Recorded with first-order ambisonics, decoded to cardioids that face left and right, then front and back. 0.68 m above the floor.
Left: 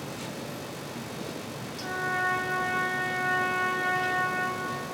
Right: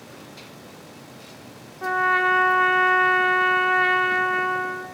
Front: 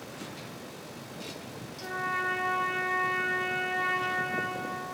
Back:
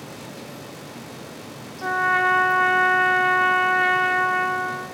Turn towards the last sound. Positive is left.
turn(degrees=-125)